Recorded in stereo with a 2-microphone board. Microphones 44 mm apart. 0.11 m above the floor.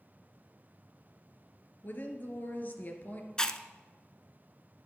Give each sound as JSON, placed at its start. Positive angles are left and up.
{"t": 1.8, "sound": "a woman speaking", "side_deg": 45, "distance_m": 2.0}
{"t": 3.4, "sound": "chewing", "side_deg": 15, "distance_m": 0.6}